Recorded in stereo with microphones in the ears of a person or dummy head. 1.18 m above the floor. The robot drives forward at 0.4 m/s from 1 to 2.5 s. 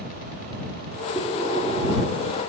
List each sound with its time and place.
1.1 s breathing: 10° right (ahead or behind), 2.5 m; by 2.5 s 5° right (ahead or behind), 3 m